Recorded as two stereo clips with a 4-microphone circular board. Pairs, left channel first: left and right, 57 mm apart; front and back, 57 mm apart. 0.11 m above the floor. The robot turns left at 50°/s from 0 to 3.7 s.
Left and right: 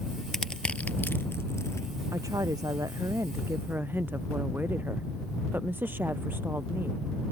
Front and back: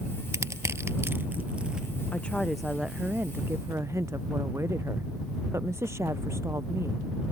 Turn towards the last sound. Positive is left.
turn(degrees=-145)